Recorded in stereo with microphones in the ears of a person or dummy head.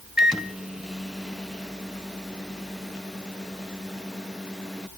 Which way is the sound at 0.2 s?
Centre (ahead or behind).